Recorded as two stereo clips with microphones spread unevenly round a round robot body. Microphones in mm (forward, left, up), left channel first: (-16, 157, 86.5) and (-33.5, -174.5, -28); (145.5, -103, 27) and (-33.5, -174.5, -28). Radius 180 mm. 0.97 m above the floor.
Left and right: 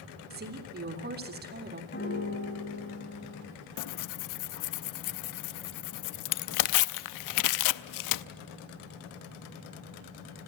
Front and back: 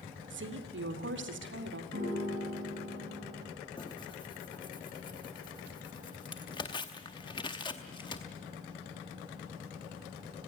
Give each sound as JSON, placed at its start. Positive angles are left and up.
{"t": 0.3, "sound": "a woman speaking", "azimuth_deg": -150, "distance_m": 3.0}
{"t": 1.9, "sound": "a piano", "azimuth_deg": 150, "distance_m": 7.0}
{"t": 3.8, "sound": "tearing paper", "azimuth_deg": 90, "distance_m": 0.5}